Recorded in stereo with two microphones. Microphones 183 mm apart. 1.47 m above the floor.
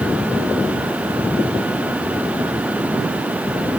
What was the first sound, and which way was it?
Only background noise.